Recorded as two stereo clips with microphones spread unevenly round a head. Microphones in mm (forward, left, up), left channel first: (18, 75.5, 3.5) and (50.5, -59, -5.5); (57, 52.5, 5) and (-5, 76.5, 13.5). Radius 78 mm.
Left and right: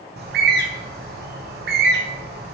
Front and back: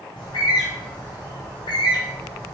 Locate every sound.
0.2 s a bird: 65° right, 0.9 m